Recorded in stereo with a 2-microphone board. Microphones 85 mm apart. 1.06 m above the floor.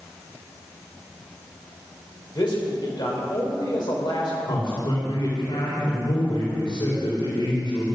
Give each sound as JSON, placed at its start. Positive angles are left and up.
{"t": 2.4, "sound": "a man speaking", "side_deg": 60, "distance_m": 4.0}
{"t": 4.5, "sound": "a man speaking", "side_deg": 80, "distance_m": 4.0}